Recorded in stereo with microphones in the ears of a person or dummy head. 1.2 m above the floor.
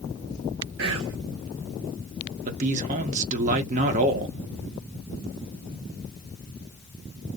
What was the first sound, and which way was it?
Whispering, 70° right (ahead or behind).